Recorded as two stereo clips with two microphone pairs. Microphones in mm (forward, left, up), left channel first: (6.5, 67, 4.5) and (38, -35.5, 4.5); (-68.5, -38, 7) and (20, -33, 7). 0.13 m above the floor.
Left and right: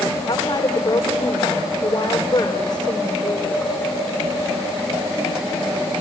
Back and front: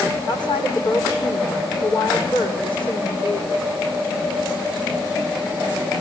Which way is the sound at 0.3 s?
160° left.